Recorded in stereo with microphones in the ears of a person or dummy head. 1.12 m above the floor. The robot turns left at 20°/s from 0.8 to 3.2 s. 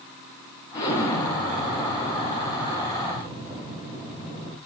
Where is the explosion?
25° left, 4.5 m; by 4.6 s 25° right, 4.5 m.